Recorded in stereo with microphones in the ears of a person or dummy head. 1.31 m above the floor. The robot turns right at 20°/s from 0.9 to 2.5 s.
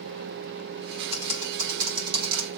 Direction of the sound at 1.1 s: 30° right (ahead or behind).